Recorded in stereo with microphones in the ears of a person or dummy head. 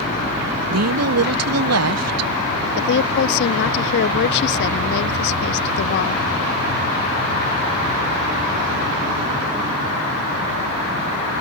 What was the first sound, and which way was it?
A woman speaking, 75° right (ahead or behind).